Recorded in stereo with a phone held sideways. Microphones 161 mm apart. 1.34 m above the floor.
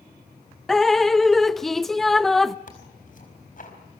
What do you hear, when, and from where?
0.7 s dripping: centre (ahead or behind), 0.6 m
2.7 s tearing paper: 60° left (ahead or behind), 4.5 m